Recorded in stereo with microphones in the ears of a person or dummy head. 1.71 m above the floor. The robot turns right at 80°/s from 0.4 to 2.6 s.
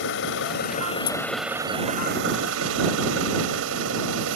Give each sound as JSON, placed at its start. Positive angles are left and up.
{"t": 0.0, "sound": "an engine running", "azimuth_deg": 105}